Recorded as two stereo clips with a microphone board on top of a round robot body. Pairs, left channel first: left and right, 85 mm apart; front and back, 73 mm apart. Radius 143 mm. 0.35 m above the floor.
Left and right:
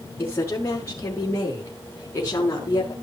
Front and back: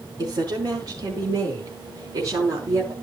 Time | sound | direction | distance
0.2 | a woman speaking | 155° left | 7.5 m